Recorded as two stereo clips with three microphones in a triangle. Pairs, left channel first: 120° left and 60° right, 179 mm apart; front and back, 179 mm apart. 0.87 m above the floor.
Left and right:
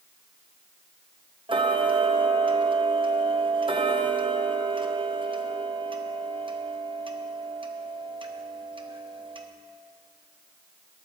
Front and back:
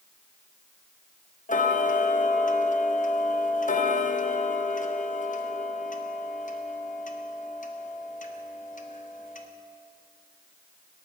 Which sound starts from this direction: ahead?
Ticking, at 1.5 s.